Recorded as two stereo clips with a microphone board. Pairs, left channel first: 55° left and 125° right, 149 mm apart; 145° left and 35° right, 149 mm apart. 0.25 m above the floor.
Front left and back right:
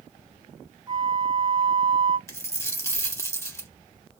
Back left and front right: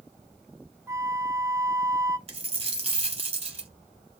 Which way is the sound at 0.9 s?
90° right.